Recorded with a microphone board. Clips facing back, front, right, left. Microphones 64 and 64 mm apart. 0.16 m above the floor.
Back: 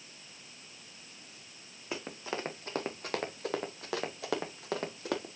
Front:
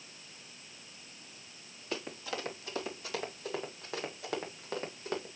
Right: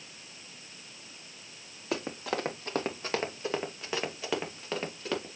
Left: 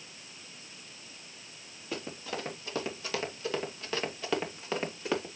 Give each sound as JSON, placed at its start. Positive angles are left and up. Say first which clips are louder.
{"t": 1.9, "sound": "running footsteps", "louder": "back 1 dB, right 5 dB", "azimuth_deg": -110, "distance_m": 2.5}